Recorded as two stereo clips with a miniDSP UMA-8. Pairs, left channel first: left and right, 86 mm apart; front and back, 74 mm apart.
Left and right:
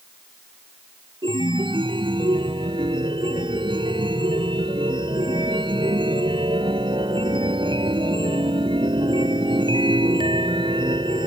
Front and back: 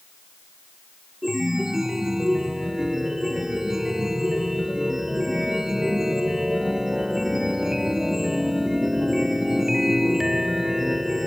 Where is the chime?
95° right.